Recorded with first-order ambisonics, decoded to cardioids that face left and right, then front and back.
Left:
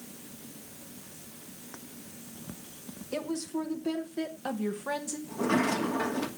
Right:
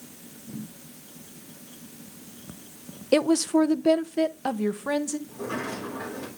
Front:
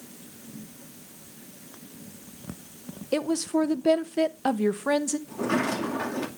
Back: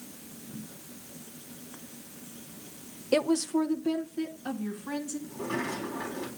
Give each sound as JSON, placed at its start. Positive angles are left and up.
{"t": 3.1, "sound": "a woman speaking", "azimuth_deg": -100, "distance_m": 0.6}
{"t": 5.3, "sound": "a sliding door", "azimuth_deg": 30, "distance_m": 2.0}